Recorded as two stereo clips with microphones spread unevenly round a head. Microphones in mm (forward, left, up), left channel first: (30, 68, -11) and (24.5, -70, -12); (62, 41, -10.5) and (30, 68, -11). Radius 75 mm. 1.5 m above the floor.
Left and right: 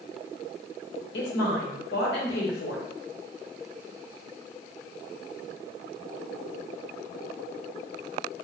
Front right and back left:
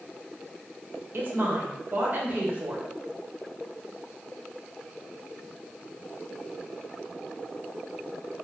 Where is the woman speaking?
100° left, 1.2 m.